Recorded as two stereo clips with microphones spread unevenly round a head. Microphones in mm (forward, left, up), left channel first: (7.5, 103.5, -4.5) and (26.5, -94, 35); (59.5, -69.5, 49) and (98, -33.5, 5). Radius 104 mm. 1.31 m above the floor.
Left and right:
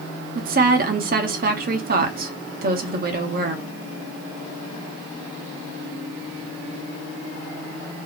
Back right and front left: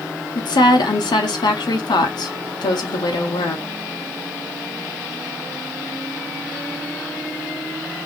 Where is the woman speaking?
135° right, 0.8 m.